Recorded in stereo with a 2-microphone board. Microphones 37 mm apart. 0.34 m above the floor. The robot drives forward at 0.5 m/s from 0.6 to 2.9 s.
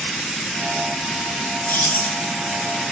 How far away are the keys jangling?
About 3.5 m.